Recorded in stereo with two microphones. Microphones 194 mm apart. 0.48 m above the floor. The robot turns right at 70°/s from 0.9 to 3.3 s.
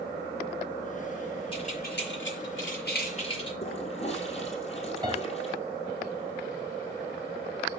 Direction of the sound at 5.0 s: 20° right (ahead or behind).